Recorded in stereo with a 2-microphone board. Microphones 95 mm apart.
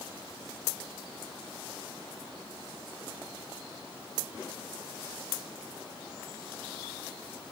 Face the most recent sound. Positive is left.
No sound to turn to.